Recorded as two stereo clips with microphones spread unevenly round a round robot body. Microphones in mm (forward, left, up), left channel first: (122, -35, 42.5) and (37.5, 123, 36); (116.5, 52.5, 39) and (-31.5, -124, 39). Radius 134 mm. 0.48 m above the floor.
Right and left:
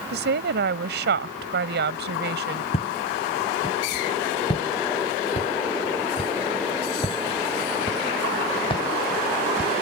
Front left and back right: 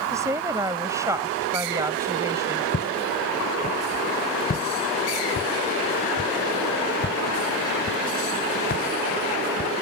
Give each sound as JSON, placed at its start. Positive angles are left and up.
{"t": 0.1, "sound": "a woman speaking", "azimuth_deg": 150}
{"t": 2.7, "sound": "footsteps", "azimuth_deg": -5}